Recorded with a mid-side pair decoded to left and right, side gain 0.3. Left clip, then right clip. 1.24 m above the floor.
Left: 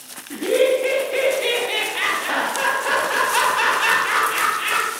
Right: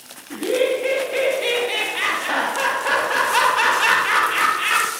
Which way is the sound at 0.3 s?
15° left.